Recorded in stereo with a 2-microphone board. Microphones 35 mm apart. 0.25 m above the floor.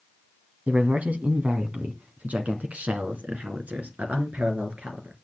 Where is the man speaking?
50° right (ahead or behind), 1.7 m; by 5.1 s 45° right (ahead or behind), 4 m.